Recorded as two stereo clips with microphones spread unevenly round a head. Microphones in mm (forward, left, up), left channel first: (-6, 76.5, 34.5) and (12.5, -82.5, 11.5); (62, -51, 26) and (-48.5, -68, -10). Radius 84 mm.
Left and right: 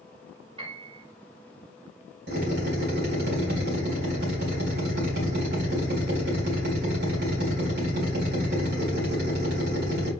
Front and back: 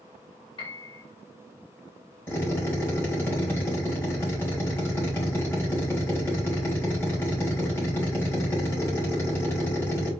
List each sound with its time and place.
0.6 s a piano: 20° right, 1.6 m
2.3 s a drill: 65° right, 3 m